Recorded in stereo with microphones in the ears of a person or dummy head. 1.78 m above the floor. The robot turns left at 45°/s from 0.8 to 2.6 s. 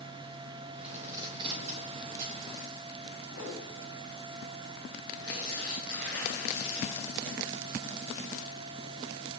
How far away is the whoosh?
About 9 m.